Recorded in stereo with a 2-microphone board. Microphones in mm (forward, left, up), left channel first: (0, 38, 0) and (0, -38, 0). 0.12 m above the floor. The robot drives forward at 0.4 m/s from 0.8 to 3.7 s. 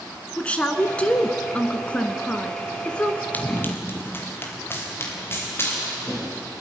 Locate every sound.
0.4 s a woman speaking: 15° left (ahead or behind), 1.3 m
3.3 s running footsteps: 20° left (ahead or behind), 2.5 m; by 6.5 s 30° left (ahead or behind), 7 m